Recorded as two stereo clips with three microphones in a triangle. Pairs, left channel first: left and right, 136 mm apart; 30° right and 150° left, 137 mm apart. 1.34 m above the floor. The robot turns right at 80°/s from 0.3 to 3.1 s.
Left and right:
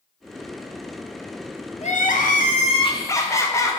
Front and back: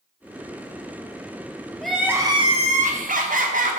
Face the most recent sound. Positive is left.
turn(degrees=155)